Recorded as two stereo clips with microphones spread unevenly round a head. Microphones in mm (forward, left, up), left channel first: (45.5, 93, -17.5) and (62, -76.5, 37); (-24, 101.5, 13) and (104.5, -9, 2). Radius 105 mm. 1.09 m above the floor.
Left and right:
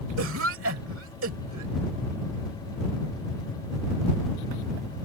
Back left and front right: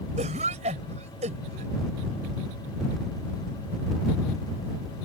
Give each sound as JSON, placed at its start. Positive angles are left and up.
{"t": 0.2, "sound": "a cough", "azimuth_deg": -105}